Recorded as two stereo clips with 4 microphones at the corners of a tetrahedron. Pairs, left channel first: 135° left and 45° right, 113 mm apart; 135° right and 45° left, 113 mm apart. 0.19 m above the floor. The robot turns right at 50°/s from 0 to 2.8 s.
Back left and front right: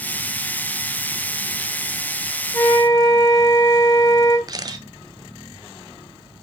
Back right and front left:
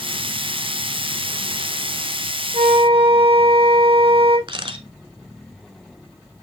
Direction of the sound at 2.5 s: 70° left.